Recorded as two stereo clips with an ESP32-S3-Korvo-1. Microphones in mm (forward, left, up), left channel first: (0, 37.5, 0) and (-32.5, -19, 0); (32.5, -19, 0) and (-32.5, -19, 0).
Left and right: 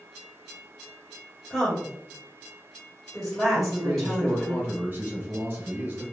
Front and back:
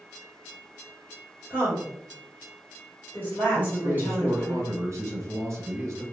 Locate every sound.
1.5 s a woman speaking: 30° right, 1.5 m
3.5 s a man speaking: 175° right, 1.4 m